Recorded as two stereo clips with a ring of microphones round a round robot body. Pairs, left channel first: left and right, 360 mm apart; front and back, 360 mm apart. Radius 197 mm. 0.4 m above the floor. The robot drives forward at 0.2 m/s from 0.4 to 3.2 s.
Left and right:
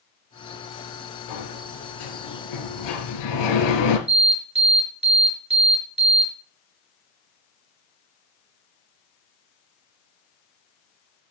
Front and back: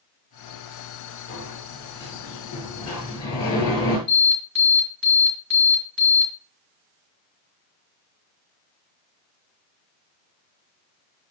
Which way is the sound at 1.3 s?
75° left.